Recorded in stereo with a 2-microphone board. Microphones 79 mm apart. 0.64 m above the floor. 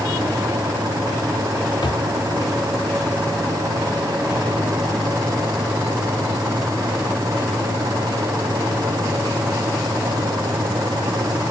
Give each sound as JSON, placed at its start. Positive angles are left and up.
{"t": 1.8, "sound": "a drawer", "side_deg": 65, "distance_m": 1.3}